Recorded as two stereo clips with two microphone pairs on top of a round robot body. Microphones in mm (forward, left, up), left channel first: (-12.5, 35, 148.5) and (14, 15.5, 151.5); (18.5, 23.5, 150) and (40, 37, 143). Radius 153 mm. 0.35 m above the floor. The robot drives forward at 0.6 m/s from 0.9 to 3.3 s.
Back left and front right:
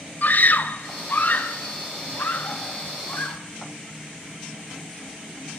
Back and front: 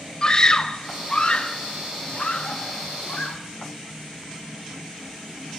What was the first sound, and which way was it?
A scream, 145° left.